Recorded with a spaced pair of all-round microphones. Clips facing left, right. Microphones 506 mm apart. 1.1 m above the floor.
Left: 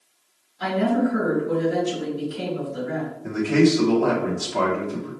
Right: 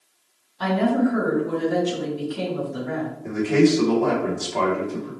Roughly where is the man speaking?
Left.